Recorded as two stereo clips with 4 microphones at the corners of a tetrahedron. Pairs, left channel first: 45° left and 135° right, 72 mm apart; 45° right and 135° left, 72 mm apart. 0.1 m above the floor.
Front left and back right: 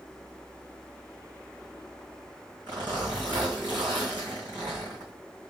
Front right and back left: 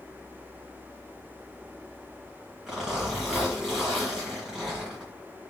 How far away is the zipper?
About 3 m.